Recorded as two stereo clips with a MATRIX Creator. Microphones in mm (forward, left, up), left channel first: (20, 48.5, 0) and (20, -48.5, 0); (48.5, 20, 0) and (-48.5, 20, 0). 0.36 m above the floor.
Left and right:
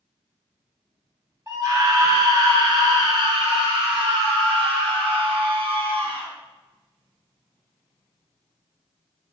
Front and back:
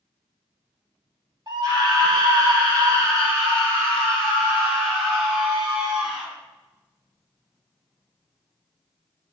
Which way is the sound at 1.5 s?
140° right.